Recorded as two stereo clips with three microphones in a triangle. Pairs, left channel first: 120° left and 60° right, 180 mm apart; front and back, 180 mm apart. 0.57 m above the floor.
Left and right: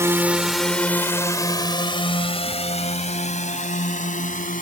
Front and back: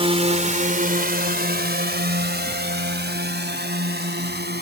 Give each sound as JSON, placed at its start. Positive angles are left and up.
{"t": 0.0, "sound": "a drone", "azimuth_deg": -130}